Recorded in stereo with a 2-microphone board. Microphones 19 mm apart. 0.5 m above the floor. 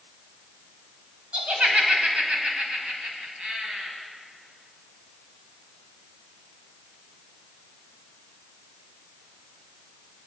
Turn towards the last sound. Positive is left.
turn(degrees=-55)  # may be behind; listen again after turning